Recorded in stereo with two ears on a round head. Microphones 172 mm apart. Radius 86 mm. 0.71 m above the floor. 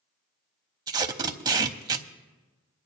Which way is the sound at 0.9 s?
20° right (ahead or behind).